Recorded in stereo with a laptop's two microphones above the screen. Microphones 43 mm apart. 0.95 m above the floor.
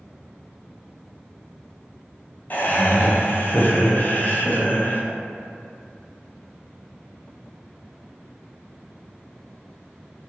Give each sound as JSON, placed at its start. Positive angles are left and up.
{"t": 2.5, "sound": "laughter", "side_deg": 45, "distance_m": 0.5}